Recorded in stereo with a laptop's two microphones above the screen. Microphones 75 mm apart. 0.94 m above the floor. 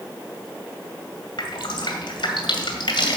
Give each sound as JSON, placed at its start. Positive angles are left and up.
{"t": 1.4, "sound": "dripping", "side_deg": 80, "distance_m": 2.0}